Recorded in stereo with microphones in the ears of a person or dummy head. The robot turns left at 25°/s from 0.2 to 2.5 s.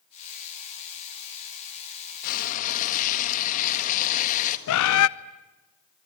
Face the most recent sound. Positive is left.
turn(degrees=80)